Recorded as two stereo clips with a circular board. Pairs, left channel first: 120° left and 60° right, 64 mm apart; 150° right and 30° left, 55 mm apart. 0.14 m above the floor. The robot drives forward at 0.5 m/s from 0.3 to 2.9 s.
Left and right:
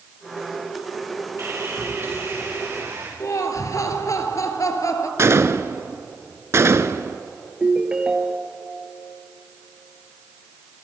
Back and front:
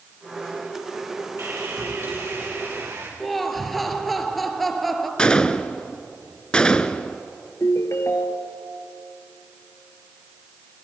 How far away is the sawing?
About 7.5 m.